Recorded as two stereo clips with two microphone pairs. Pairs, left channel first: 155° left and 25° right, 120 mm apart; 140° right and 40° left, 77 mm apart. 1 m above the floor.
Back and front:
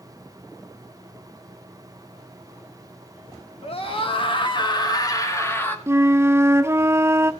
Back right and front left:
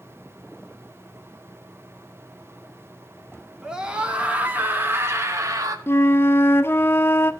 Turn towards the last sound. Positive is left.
turn(degrees=-90)